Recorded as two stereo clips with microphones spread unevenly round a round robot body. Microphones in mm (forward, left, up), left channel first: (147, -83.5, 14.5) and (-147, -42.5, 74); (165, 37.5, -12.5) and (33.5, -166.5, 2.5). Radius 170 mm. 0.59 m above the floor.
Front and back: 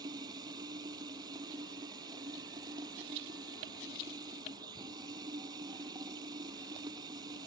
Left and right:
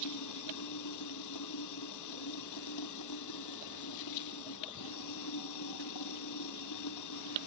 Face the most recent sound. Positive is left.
turn(degrees=95)